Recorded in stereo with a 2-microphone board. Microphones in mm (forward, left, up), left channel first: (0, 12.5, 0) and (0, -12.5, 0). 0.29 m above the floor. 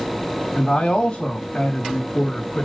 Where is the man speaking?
40° left (ahead or behind), 1.6 m.